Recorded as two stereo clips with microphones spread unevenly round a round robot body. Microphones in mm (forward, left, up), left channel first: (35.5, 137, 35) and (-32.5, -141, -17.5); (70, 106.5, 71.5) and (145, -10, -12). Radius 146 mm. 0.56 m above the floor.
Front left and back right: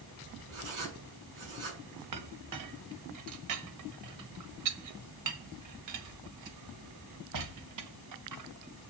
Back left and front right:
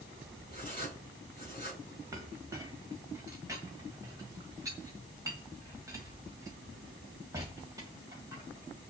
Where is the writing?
115° right, 6.5 m.